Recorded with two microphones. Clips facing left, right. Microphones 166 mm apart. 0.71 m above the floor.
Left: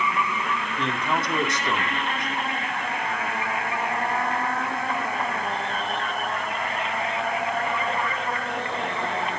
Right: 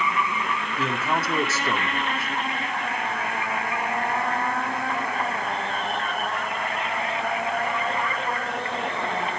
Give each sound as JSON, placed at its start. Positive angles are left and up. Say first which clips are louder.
{"t": 0.8, "sound": "a man speaking", "louder": "right 1 dB", "side_deg": -5, "distance_m": 1.9}